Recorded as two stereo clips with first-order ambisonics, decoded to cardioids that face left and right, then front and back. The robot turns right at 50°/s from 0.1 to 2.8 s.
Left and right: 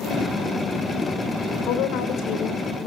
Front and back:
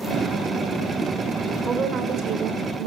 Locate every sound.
1.7 s a woman speaking: 105° left, 3 m; by 2.9 s 165° left, 3 m